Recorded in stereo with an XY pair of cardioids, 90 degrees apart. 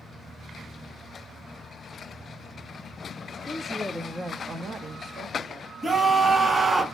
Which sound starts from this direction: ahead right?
A scream, at 5.8 s.